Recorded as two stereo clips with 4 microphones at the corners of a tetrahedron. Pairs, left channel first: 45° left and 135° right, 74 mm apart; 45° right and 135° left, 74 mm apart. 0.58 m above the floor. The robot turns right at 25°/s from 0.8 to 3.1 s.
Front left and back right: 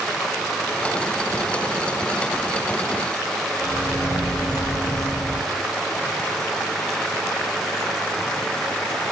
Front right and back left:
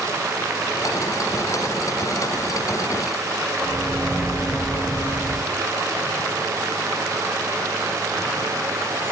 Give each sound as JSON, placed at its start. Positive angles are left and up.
{"t": 3.6, "sound": "a microwave", "azimuth_deg": 60, "distance_m": 2.5}